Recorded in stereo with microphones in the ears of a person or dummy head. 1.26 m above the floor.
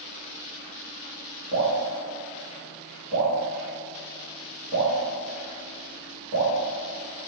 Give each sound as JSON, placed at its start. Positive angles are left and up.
{"t": 1.5, "sound": "dripping", "side_deg": -60, "distance_m": 0.9}